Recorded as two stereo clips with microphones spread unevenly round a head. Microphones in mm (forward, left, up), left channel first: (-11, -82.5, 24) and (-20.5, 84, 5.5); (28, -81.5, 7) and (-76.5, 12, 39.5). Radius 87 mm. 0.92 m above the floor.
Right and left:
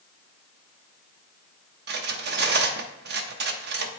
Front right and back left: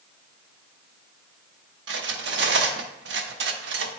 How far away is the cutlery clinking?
About 0.7 m.